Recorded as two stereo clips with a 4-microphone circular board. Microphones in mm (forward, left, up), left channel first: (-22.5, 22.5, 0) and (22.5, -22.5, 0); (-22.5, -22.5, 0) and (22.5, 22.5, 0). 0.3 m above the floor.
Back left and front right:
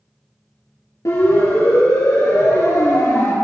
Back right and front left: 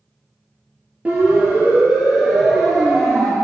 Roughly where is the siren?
Left.